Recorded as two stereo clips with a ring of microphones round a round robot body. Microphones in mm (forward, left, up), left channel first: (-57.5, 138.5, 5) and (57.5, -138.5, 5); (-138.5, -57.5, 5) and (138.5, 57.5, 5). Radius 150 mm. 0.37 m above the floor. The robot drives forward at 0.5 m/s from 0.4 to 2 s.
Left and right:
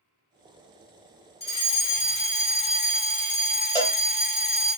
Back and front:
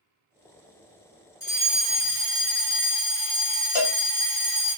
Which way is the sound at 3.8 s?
170° right.